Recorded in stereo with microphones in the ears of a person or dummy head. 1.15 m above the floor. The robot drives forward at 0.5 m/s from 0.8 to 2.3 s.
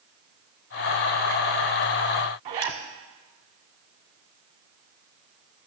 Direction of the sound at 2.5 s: 35° right (ahead or behind).